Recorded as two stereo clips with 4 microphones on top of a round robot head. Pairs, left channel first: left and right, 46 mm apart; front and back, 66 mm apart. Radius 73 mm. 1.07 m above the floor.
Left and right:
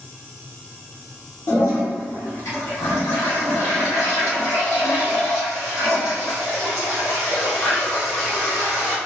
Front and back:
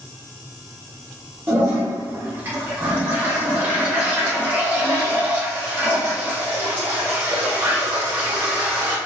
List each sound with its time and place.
1.5 s a toilet flushing: 120° left, 0.7 m